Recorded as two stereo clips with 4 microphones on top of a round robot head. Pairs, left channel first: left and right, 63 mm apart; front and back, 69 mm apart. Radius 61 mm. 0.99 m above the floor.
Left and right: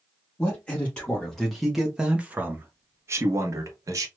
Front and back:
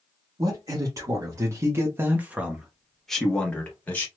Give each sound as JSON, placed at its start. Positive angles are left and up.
{"t": 0.4, "sound": "a man speaking", "azimuth_deg": 155, "distance_m": 1.4}